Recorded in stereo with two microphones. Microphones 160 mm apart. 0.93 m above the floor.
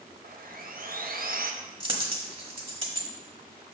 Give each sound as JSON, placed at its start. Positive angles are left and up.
{"t": 0.2, "sound": "sawing", "side_deg": -65, "distance_m": 0.6}
{"t": 1.8, "sound": "a dropped coin", "side_deg": -35, "distance_m": 1.1}